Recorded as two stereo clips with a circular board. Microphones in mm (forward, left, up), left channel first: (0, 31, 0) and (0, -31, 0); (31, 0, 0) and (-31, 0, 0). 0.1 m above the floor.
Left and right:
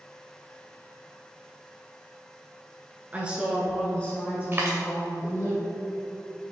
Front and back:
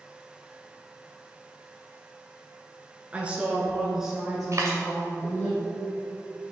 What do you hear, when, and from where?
3.1 s a woman speaking: 135° right, 1.3 m; by 5.5 s 75° left, 2.5 m
4.5 s a dropped coin: 145° right, 1.7 m